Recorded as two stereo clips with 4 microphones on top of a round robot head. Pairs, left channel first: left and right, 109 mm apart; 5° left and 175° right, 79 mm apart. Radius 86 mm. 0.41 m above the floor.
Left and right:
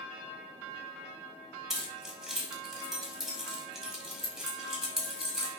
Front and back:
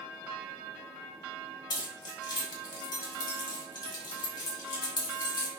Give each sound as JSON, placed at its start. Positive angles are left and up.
{"t": 1.7, "sound": "keys jangling", "azimuth_deg": -5, "distance_m": 0.9}